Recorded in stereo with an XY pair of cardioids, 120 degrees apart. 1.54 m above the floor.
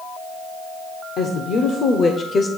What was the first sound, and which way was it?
A woman speaking, 65° left.